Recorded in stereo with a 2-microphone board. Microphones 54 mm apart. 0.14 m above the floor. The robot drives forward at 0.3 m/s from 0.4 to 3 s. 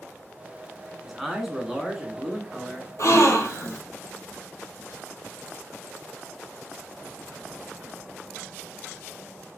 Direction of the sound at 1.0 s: 5° right (ahead or behind).